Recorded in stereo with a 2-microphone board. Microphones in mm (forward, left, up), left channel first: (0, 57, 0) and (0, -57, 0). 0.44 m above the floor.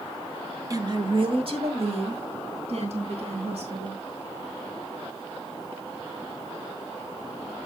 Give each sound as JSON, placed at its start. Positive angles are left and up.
{"t": 0.7, "sound": "a woman speaking", "side_deg": -30, "distance_m": 1.1}